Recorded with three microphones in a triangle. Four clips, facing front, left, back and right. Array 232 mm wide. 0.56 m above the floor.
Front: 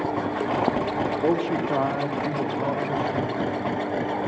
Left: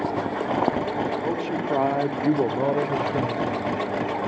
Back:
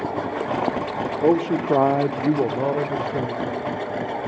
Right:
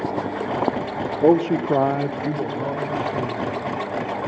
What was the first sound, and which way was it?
A man speaking, 105° right.